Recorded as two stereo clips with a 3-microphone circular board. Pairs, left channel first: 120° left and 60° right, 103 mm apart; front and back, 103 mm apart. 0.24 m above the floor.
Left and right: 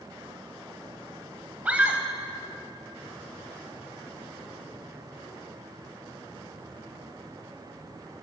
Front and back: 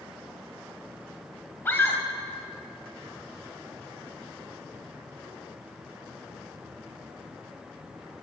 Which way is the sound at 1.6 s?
10° right.